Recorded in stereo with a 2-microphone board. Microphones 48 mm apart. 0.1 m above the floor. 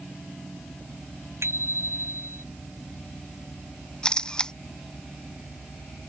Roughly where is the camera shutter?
Centre.